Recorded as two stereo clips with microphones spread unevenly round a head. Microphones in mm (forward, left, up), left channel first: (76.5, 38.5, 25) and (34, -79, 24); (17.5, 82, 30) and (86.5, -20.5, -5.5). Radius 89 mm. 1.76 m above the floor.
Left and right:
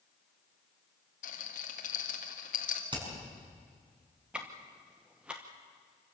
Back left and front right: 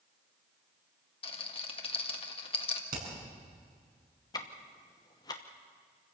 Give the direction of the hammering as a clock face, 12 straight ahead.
2 o'clock.